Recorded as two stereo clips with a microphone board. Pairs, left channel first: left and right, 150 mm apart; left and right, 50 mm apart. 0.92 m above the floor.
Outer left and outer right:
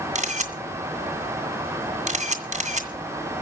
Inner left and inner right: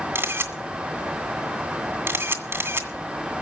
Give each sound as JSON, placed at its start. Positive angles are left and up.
{"t": 0.1, "sound": "a camera shutter", "side_deg": -55, "distance_m": 2.0}